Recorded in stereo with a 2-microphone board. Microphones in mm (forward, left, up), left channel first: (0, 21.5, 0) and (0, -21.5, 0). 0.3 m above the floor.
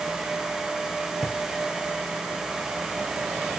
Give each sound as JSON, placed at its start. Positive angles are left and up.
{"t": 1.2, "sound": "a drawer", "side_deg": 10, "distance_m": 1.8}